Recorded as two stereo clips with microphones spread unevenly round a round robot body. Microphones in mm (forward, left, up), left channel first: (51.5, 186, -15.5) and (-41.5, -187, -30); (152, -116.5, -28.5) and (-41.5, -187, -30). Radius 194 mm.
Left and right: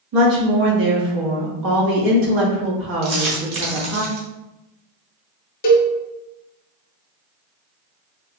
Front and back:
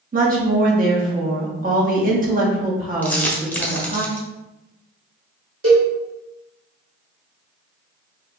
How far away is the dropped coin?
About 1.3 m.